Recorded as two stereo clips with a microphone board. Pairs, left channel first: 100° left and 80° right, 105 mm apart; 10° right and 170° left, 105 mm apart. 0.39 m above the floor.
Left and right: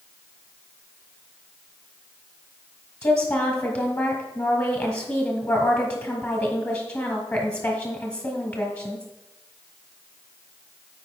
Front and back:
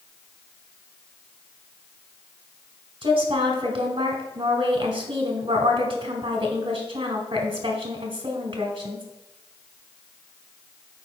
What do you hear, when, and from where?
3.0 s a woman speaking: 150° left, 1.5 m